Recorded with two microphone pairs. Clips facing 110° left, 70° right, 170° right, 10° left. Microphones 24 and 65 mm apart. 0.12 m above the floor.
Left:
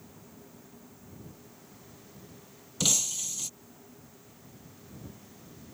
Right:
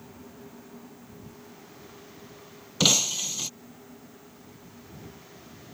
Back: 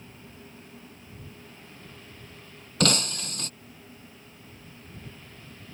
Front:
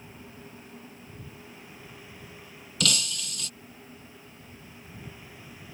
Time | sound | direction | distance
2.8 | breaking glass | 125° right | ?